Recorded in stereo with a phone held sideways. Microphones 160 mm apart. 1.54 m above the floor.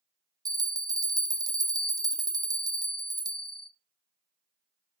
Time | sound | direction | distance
0.5 | a bell | 25° right (ahead or behind) | 0.6 m